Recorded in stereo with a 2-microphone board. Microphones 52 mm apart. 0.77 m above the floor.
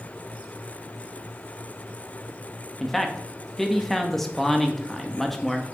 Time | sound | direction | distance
2.8 | a man speaking | 5° left (ahead or behind) | 0.8 m